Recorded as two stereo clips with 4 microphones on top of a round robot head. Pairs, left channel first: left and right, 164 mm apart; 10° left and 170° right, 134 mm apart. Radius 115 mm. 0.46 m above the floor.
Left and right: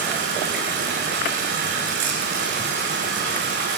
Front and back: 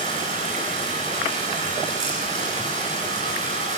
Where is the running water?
120° right, 8 m.